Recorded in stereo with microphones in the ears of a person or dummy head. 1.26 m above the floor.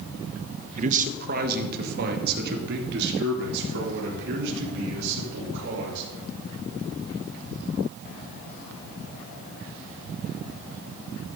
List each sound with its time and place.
0.8 s a man speaking: 40° right (ahead or behind), 1.2 m; by 6.0 s 65° right (ahead or behind), 6 m